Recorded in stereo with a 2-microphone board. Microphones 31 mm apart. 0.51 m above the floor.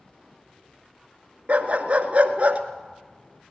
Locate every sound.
1.5 s a dog barking: 40° right (ahead or behind), 2 m